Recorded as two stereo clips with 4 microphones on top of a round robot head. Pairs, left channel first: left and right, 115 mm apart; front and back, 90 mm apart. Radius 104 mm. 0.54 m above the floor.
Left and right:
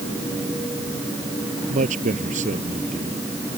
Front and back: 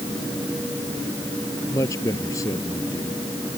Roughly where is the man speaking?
Right.